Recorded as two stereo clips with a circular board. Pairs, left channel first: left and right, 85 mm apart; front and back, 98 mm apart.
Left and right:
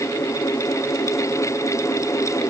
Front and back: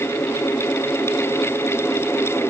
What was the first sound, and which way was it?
Only background noise.